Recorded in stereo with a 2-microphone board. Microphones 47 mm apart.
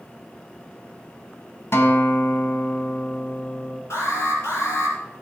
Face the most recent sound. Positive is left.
turn(degrees=75)  # may be behind; listen again after turning